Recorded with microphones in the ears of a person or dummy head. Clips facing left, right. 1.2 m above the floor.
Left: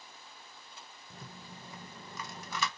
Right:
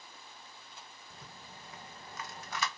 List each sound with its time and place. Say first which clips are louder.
1.1 s a rattle: left 5 dB; 75° left (ahead or behind), 0.6 m